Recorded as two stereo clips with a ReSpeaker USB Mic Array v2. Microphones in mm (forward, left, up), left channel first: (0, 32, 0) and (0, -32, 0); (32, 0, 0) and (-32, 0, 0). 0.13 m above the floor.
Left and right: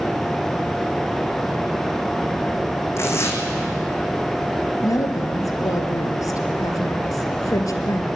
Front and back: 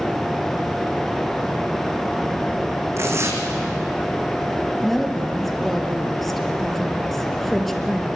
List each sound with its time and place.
3.0 s tearing paper: 135° left, 3 m
4.8 s a woman speaking: 85° left, 2.5 m